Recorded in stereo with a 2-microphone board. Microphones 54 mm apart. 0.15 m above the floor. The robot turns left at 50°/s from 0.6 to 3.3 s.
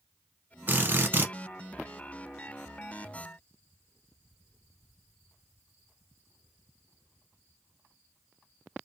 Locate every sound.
0.7 s a drill: 70° right, 1.1 m; by 1.3 s 100° right, 1.1 m